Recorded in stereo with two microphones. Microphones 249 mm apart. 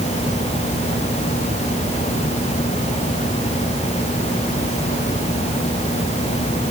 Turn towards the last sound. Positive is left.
No sound to turn to.